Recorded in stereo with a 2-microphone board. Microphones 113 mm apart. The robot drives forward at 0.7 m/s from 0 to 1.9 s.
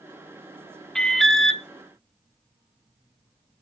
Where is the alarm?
5° left (ahead or behind), 0.7 m.